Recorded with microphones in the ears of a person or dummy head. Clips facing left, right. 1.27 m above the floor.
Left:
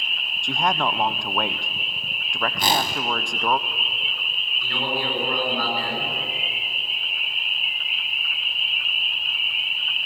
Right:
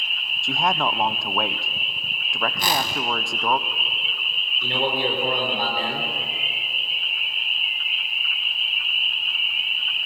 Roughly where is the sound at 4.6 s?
Right.